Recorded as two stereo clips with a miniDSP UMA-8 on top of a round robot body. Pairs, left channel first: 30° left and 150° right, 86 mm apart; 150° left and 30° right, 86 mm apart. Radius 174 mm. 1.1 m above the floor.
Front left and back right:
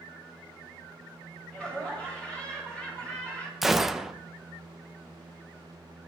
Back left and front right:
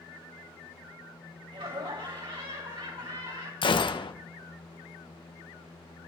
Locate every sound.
1.5 s laughter: 50° right, 7.5 m
3.6 s a gunshot: 125° left, 1.0 m